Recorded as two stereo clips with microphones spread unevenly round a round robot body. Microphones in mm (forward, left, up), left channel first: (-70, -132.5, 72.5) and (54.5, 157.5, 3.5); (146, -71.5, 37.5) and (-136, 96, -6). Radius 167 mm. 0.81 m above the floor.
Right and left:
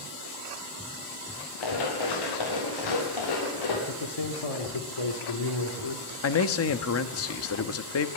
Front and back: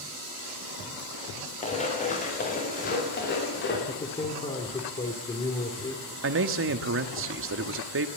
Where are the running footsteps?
100° right, 7.5 m; by 3.8 s 90° right, 7.5 m.